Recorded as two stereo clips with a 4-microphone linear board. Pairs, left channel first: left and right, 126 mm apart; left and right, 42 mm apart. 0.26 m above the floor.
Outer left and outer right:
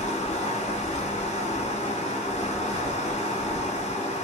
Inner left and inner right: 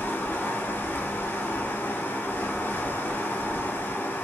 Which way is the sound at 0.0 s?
60° left (ahead or behind).